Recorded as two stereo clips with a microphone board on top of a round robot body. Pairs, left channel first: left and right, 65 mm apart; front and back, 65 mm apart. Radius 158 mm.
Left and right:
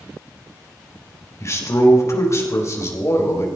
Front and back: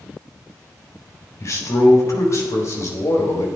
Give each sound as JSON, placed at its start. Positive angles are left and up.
{"t": 1.4, "sound": "a man speaking", "azimuth_deg": 45, "distance_m": 3.5}